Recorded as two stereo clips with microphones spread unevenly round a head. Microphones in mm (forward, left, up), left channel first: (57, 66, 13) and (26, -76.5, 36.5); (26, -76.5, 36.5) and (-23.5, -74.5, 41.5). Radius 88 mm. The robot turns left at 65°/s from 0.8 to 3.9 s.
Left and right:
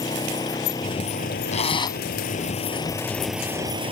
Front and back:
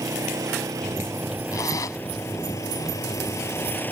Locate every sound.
0.0 s an engine running: 150° left; by 3.9 s 55° right
1.5 s a zipper: 40° left; by 2.0 s 10° left